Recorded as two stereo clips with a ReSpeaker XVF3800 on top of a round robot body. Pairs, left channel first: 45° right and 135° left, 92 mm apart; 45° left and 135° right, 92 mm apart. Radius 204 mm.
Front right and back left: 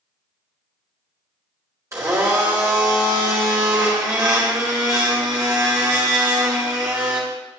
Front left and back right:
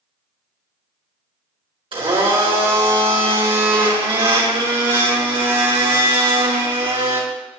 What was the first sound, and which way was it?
A blender, 165° right.